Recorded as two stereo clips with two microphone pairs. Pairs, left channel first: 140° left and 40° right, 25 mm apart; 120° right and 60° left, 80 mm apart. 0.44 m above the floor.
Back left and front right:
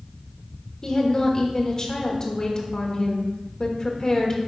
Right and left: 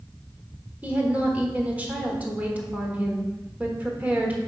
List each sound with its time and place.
0.8 s a woman speaking: 115° left, 1.3 m